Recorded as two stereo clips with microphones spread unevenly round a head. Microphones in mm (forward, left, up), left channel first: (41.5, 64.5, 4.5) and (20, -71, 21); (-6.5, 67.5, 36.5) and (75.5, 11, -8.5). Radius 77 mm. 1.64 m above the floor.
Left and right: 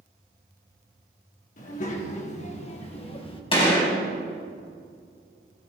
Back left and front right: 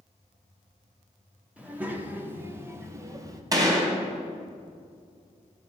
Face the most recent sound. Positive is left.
turn(degrees=30)